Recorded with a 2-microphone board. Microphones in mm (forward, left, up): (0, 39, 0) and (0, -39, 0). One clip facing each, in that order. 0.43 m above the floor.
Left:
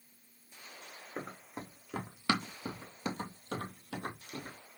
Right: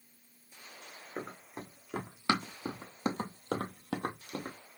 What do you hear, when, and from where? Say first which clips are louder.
1.2 s running footsteps: right 1 dB; centre (ahead or behind), 1.2 m; by 4.6 s 55° right (ahead or behind), 1.0 m